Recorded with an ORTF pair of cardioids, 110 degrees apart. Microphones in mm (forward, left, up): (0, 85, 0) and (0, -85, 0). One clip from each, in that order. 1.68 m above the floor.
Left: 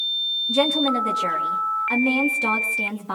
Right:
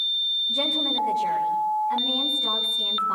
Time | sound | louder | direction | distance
0.5 | a woman speaking | left 3 dB | 65° left | 4 m